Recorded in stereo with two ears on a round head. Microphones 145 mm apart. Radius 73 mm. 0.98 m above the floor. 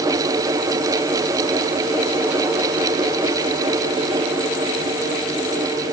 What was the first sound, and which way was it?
Only background noise.